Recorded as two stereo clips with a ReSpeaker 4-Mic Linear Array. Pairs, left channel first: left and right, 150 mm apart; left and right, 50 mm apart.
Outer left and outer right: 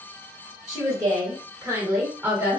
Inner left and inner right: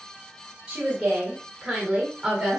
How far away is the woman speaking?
About 1.3 m.